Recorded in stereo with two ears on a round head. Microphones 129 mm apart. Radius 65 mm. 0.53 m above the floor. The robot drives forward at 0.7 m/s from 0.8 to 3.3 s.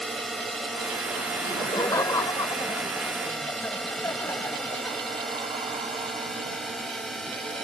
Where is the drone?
Centre (ahead or behind).